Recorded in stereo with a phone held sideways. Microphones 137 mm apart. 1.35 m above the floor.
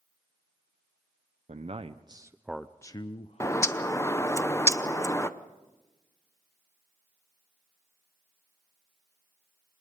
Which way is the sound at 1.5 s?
55° right (ahead or behind).